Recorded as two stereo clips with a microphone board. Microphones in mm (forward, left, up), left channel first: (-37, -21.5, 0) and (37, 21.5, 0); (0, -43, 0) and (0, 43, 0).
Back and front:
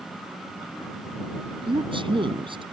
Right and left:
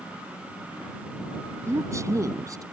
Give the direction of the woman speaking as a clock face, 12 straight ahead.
11 o'clock.